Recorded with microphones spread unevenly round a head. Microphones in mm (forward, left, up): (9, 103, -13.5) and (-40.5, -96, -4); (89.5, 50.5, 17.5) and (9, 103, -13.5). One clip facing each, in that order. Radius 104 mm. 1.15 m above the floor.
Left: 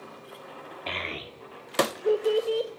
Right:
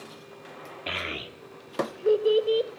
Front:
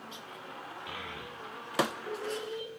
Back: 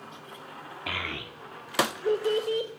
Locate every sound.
0.9 s a child speaking: 175° left, 1.4 m; by 2.7 s 175° right, 3 m